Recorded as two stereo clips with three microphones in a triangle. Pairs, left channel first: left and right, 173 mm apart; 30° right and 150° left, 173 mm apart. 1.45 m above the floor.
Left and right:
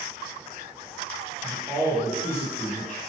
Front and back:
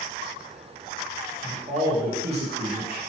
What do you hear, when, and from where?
1.4 s a man speaking: 150° right, 1.3 m; by 3.0 s 130° left, 1.2 m